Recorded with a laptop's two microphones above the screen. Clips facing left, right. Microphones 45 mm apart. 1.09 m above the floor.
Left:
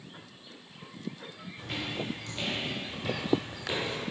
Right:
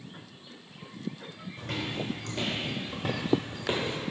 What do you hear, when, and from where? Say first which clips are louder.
1.6 s footsteps: right 1 dB; 55° right (ahead or behind), 2.5 m; by 4.0 s 35° right (ahead or behind), 1.4 m